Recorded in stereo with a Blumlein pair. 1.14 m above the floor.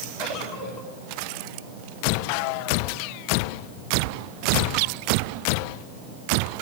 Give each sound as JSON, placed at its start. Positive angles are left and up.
{"t": 0.2, "sound": "a giggle", "azimuth_deg": 45, "distance_m": 9.0}